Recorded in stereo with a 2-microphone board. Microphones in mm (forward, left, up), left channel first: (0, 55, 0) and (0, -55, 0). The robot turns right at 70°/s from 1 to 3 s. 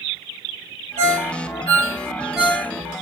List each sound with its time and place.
1.0 s a ringtone: 80° right, 1.1 m; by 2.7 s 15° left (ahead or behind), 1.1 m